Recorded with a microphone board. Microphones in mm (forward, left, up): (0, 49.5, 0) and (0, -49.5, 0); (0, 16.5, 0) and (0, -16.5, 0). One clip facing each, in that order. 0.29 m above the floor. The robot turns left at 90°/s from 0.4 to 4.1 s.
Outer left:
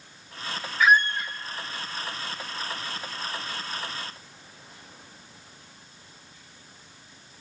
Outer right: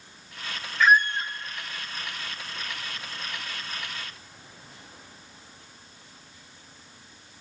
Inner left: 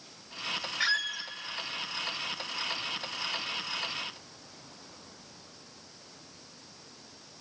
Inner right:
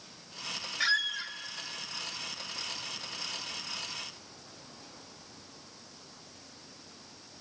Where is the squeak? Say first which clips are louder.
Even, inner right 2 dB; 10° left, 0.6 m; by 1.3 s 40° right, 0.6 m.